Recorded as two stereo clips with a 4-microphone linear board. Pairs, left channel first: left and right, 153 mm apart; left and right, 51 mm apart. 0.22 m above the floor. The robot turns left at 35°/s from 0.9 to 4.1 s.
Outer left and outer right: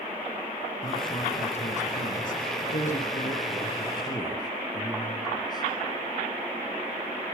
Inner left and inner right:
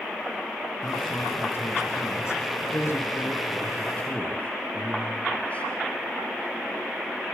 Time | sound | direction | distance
0.8 | a man speaking | 145° left | 3 m